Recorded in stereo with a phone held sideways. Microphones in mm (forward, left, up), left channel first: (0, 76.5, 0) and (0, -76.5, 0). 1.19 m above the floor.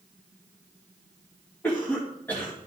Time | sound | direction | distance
1.6 | a cough | 15° left (ahead or behind) | 2 m